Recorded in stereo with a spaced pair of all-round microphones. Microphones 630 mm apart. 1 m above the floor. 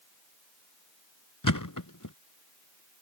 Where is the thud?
30° left (ahead or behind).